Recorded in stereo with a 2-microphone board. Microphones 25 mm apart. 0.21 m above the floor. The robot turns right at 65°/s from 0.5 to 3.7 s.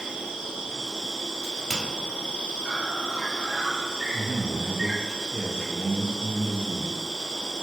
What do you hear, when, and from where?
0.0 s an insect: 40° right, 1.1 m; by 7.6 s 170° left, 1.1 m
1.4 s a crack: 15° left (ahead or behind), 1.1 m; by 1.8 s 10° right (ahead or behind), 1.1 m
4.1 s a man speaking: 10° right (ahead or behind), 1.3 m